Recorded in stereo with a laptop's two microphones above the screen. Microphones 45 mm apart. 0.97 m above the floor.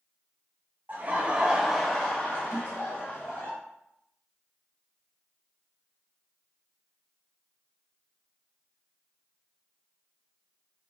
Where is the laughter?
40° right (ahead or behind), 1.0 m; by 3.5 s 60° left (ahead or behind), 1.4 m.